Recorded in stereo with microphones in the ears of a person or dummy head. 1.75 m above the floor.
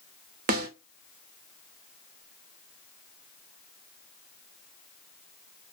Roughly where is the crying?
I don't hear crying.